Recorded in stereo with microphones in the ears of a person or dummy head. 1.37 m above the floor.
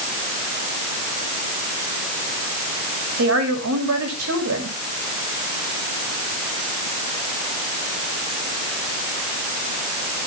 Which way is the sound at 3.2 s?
90° right.